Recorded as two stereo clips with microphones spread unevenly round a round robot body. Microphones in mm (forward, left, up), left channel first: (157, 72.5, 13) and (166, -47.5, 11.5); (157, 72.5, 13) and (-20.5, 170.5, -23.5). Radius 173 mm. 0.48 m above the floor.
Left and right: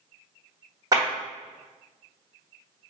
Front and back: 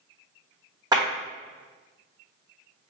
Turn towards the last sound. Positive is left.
turn(degrees=-145)